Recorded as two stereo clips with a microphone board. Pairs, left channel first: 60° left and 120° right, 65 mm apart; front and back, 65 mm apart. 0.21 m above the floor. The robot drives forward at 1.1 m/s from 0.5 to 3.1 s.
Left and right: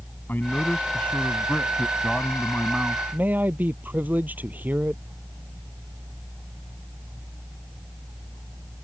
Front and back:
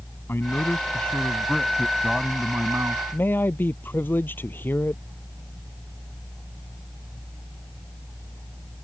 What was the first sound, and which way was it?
A man speaking, 20° left.